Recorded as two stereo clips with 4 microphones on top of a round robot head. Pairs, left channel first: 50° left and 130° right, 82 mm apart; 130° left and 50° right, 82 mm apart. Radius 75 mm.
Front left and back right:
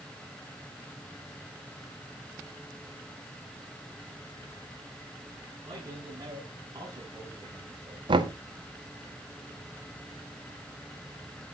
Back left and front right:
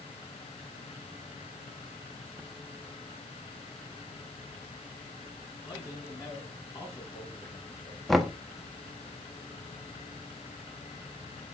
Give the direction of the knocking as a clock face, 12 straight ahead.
5 o'clock.